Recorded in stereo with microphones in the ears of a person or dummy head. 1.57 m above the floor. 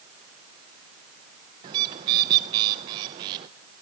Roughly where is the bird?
Right.